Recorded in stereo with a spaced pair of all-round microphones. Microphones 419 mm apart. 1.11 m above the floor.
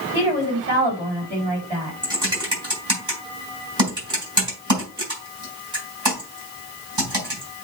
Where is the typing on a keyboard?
70° right (ahead or behind), 5 m.